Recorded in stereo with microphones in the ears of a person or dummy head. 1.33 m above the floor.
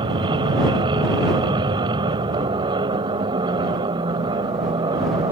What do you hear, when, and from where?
0.0 s an aircraft: 25° right (ahead or behind)